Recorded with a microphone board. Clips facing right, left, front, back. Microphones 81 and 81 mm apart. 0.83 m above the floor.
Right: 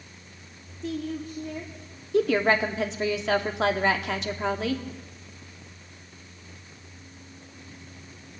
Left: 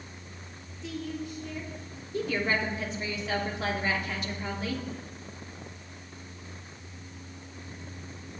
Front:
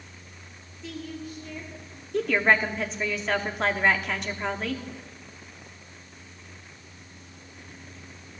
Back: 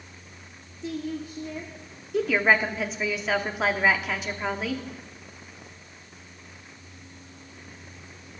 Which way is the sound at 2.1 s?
95° right.